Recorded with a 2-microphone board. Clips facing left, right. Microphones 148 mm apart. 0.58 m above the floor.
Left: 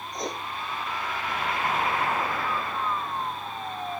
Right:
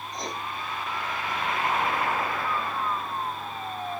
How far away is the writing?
About 1.3 m.